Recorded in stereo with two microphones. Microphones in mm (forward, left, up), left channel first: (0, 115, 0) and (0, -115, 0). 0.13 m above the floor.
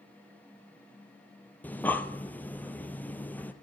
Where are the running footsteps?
I don't hear running footsteps.